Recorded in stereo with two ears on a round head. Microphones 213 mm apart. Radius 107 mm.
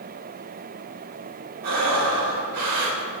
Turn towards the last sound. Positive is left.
turn(degrees=-75)  # may be behind; listen again after turning